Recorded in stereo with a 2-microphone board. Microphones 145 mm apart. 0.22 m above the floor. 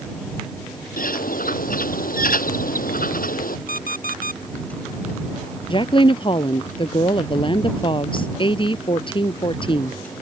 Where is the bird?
80° left.